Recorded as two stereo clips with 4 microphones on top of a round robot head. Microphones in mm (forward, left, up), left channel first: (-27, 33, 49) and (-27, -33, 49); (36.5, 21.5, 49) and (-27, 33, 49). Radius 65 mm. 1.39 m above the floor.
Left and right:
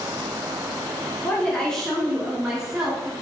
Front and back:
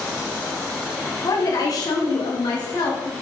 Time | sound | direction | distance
1.2 | a woman speaking | 25° left | 1.3 m